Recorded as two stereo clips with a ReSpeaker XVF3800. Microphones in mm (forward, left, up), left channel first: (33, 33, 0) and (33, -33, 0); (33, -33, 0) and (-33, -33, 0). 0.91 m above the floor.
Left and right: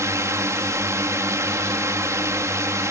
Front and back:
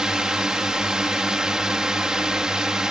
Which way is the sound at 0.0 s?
100° right.